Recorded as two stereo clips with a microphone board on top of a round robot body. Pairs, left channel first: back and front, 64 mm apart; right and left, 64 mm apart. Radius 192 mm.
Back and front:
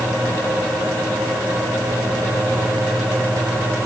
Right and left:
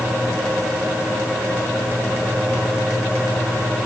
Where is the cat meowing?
I don't hear a cat meowing.